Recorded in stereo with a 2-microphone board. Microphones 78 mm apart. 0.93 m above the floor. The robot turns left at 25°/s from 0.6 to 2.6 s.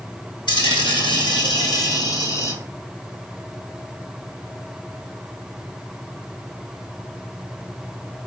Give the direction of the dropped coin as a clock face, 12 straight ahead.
9 o'clock.